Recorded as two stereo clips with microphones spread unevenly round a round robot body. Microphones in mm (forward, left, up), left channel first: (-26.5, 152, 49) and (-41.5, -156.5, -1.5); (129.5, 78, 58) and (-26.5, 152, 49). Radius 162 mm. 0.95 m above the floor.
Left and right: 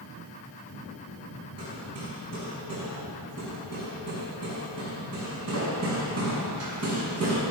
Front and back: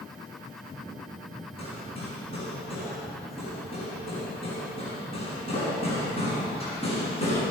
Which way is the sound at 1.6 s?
130° right.